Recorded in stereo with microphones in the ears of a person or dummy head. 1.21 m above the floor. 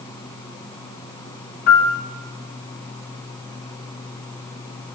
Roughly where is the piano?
Left.